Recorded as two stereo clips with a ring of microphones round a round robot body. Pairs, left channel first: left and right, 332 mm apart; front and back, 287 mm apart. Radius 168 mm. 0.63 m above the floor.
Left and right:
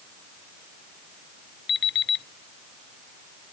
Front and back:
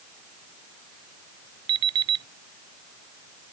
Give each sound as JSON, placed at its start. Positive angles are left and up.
{"t": 1.7, "sound": "an alarm clock", "azimuth_deg": 150}